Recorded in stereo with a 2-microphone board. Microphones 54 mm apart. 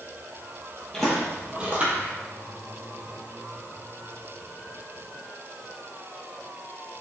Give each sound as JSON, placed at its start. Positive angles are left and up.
{"t": 0.9, "sound": "footsteps", "side_deg": 15, "distance_m": 1.0}